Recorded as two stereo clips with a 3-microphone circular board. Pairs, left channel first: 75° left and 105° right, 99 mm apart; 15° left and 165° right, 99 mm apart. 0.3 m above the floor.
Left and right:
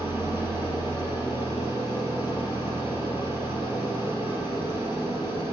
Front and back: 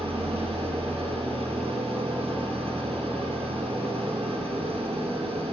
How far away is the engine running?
About 1.9 m.